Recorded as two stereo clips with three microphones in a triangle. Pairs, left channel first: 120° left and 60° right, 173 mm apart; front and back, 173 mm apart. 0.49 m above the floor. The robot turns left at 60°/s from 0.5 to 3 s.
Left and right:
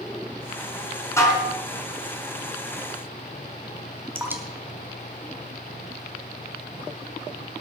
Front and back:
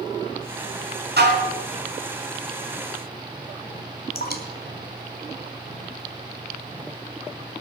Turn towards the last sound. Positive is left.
turn(degrees=20)